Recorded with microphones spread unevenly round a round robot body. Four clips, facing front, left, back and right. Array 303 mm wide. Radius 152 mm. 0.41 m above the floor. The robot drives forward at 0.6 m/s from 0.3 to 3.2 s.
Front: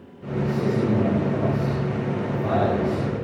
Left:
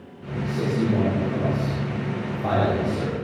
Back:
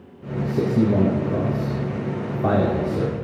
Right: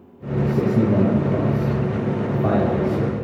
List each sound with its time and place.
0.4 s a man speaking: 145° right, 4 m; by 3.1 s 155° right, 5.5 m